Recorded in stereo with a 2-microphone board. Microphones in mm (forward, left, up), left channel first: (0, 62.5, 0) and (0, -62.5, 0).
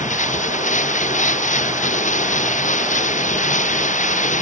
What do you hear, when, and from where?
0.0 s running water: 85° left